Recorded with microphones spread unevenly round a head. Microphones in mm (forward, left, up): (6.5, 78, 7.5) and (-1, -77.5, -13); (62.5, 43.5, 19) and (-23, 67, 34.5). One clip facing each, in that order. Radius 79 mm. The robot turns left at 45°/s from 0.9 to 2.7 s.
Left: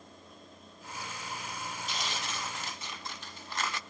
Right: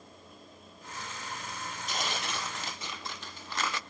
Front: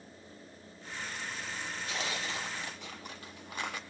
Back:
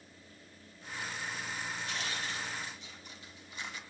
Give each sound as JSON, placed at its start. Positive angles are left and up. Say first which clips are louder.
{"t": 1.9, "sound": "tearing paper", "louder": "right 5 dB, front 2 dB", "azimuth_deg": -40, "distance_m": 0.5}